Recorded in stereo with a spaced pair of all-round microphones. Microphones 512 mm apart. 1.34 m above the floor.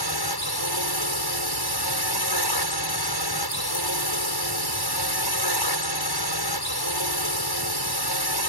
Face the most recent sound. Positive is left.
turn(degrees=45)  # may be behind; listen again after turning